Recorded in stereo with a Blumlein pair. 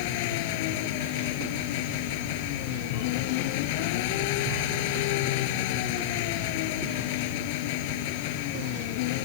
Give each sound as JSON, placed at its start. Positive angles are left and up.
{"t": 0.0, "sound": "an engine running", "azimuth_deg": 45}